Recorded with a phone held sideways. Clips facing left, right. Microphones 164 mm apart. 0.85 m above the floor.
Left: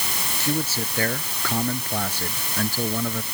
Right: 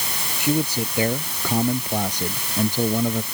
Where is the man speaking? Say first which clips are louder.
Right 5 dB; 15° right (ahead or behind); by 3.2 s 20° right (ahead or behind).